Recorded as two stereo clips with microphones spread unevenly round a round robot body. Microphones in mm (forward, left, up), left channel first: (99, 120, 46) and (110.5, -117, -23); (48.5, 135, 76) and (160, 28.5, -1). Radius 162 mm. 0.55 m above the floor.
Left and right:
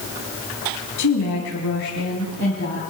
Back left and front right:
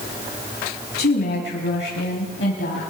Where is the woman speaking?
120° left, 4.5 m; by 2.8 s 155° left, 4 m.